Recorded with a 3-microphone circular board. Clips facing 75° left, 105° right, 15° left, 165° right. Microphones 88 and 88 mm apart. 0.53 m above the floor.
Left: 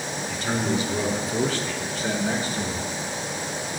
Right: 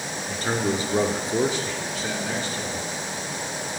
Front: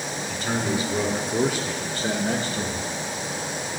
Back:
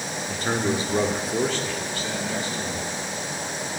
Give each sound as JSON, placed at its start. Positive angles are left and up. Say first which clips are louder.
{"t": 0.3, "sound": "a man speaking", "louder": "right 1 dB, back 2 dB", "azimuth_deg": -140, "distance_m": 1.2}